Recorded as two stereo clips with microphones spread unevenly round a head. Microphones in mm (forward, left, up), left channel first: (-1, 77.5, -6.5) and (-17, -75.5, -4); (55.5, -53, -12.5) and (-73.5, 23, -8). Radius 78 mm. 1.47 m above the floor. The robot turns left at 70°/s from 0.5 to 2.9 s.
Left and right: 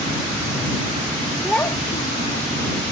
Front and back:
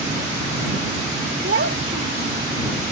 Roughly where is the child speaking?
Behind.